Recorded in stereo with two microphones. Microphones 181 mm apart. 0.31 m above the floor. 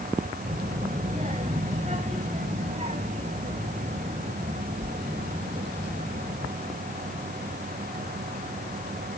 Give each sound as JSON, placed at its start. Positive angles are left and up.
{"t": 0.5, "sound": "a child speaking", "side_deg": -35, "distance_m": 1.2}